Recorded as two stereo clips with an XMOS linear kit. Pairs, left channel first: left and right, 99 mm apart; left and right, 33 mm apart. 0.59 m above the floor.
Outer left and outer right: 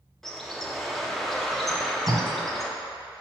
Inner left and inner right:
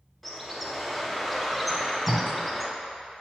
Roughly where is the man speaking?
No man speaking in this recording.